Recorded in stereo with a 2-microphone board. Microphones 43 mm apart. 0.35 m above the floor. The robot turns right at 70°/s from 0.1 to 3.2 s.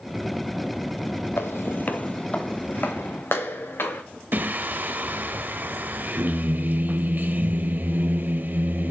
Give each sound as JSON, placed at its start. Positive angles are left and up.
{"t": 1.4, "sound": "footsteps", "side_deg": 65, "distance_m": 1.0}
{"t": 4.3, "sound": "singing", "side_deg": -45, "distance_m": 0.5}